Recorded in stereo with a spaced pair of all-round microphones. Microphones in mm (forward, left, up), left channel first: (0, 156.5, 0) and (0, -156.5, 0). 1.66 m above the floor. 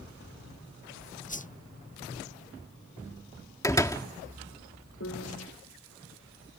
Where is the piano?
55° left (ahead or behind).